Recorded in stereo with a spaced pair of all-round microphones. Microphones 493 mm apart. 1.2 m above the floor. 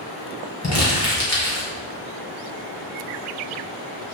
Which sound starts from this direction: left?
Crumpling, at 0.6 s.